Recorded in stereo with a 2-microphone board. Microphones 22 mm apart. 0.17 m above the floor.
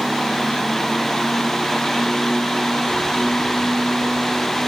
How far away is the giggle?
I don't hear a giggle.